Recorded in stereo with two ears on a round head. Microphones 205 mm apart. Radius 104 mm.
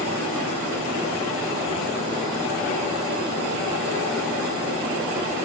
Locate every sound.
Only background noise.